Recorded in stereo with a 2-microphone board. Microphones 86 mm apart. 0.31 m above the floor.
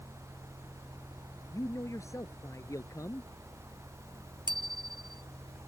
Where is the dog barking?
I don't hear a dog barking.